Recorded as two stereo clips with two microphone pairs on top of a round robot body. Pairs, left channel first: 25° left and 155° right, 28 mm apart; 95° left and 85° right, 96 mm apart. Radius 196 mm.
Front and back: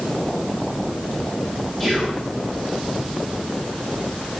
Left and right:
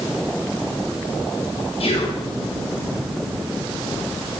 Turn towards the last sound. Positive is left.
turn(degrees=120)